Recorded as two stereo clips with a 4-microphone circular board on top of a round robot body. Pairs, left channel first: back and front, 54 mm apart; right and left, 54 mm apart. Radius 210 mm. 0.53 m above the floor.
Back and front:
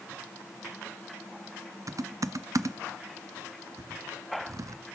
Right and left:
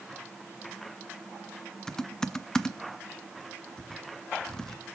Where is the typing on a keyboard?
10° right, 0.5 m.